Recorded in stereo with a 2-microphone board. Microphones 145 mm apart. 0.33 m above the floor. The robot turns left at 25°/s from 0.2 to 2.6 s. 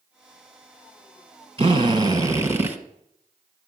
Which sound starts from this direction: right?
A drill, at 1.6 s.